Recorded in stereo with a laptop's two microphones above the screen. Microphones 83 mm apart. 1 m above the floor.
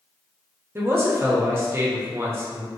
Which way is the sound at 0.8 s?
30° right (ahead or behind).